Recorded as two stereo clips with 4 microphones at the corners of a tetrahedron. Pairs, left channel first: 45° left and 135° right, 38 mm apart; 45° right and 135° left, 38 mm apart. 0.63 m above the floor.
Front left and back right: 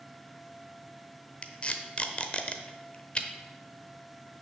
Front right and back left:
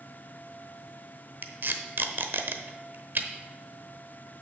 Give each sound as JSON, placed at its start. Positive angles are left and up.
{"t": 1.4, "sound": "tape being pulled", "azimuth_deg": 100, "distance_m": 0.8}